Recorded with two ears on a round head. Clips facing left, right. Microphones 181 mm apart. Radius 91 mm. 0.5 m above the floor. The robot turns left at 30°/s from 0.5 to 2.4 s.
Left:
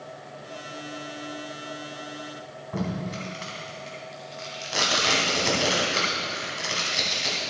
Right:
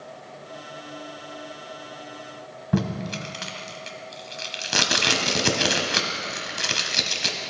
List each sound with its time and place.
2.7 s tape being pulled: 70° right (ahead or behind), 0.9 m